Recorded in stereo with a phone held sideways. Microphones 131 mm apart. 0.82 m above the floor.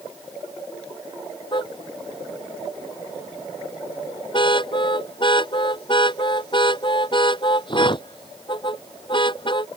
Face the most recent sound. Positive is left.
turn(degrees=40)  # may be behind; listen again after turning